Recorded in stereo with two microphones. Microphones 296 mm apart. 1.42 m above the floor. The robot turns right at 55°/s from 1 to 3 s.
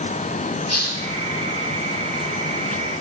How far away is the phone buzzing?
No phone buzzing in this recording.